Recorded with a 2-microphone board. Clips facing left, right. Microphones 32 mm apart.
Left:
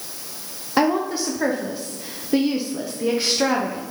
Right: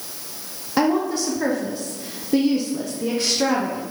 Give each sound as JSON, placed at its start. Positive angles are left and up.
{"t": 0.8, "sound": "a woman speaking", "side_deg": 10, "distance_m": 0.9}